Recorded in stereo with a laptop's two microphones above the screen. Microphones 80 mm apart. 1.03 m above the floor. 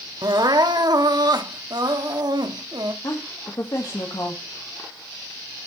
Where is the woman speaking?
55° left (ahead or behind), 1.3 m.